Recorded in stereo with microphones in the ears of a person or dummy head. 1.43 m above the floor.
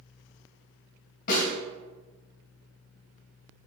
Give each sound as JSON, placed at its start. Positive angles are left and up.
{"t": 1.3, "sound": "a snare drum", "side_deg": 50, "distance_m": 1.7}